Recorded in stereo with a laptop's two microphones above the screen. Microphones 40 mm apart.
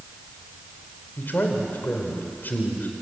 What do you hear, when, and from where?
1.2 s a man speaking: 50° left (ahead or behind), 3.5 m